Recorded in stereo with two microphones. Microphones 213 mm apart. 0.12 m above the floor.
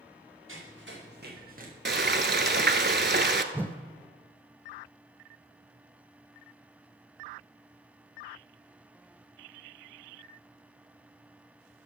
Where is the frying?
55° right (ahead or behind), 0.7 m.